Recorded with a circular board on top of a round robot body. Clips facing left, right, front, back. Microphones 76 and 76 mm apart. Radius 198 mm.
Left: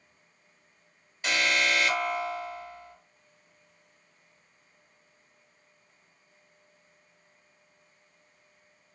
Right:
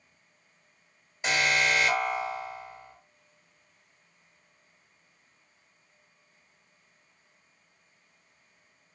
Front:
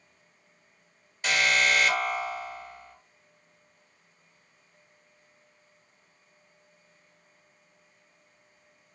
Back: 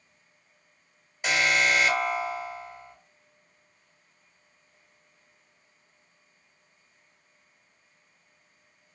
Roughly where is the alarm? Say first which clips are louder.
Right 1 dB, back 1 dB; behind right.